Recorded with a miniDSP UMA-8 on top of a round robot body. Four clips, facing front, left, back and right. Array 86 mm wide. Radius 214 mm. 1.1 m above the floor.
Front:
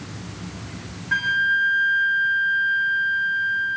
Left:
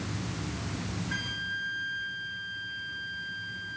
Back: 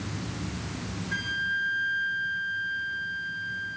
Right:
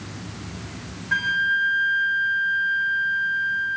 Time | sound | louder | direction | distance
1.1 | a flute | right 13 dB, front 10 dB | 40° right | 0.6 m